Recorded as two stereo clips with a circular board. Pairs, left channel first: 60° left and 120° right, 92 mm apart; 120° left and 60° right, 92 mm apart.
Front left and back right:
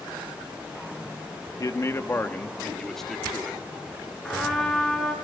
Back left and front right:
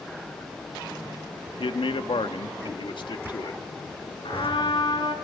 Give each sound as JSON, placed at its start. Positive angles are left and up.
{"t": 1.6, "sound": "a man speaking", "azimuth_deg": 105, "distance_m": 1.2}
{"t": 4.2, "sound": "a trumpet", "azimuth_deg": 140, "distance_m": 4.0}